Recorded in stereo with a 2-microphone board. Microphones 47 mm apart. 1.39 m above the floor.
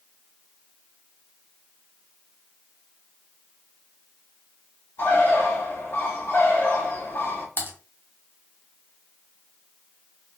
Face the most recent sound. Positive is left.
turn(degrees=40)  # may be behind; listen again after turning